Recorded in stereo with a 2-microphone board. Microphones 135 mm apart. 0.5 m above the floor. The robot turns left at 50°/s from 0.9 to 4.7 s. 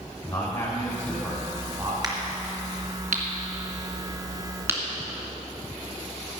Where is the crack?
30° right (ahead or behind), 2.5 m; by 4.8 s 15° right (ahead or behind), 2.5 m.